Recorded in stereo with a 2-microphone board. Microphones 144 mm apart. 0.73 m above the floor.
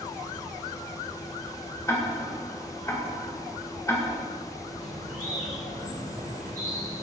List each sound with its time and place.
1.9 s ticking: 20° left (ahead or behind), 1.8 m
4.8 s a bird: 80° right, 2.5 m